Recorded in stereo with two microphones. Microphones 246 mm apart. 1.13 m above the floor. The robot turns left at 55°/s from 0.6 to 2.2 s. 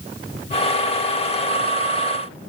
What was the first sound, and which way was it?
Only background noise.